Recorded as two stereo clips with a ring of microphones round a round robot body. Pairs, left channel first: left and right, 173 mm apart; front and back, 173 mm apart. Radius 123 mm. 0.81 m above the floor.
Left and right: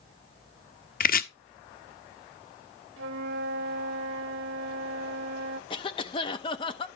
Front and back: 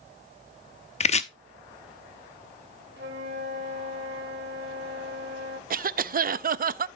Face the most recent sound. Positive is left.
turn(degrees=155)